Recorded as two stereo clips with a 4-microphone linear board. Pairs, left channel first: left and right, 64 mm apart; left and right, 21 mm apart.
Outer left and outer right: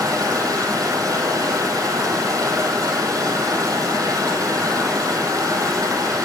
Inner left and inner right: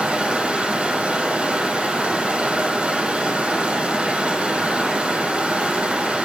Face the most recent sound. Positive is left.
turn(degrees=-75)  # may be behind; listen again after turning